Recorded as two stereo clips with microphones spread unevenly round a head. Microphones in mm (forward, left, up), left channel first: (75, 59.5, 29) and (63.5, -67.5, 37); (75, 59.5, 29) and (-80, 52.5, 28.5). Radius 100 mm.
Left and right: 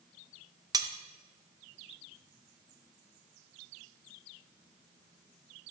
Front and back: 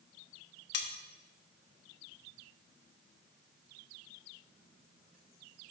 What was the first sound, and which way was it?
Cutlery clinking, 35° right.